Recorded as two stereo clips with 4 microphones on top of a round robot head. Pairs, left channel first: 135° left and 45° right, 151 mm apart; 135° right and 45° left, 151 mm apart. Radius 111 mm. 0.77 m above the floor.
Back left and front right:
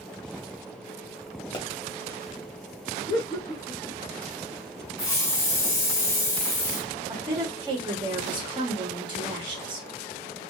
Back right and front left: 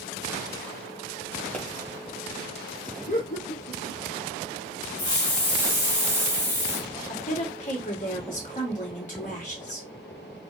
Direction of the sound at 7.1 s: 105° right.